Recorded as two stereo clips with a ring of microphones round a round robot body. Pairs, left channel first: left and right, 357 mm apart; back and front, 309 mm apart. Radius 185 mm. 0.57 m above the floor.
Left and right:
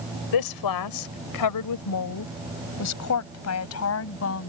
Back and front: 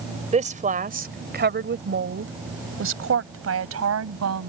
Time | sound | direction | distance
0.3 | a woman speaking | 70° left | ?